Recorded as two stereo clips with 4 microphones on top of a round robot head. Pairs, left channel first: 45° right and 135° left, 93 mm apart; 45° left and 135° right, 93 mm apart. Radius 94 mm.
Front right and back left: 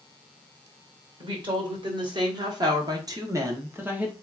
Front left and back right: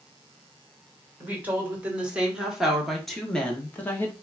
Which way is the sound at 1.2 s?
155° left.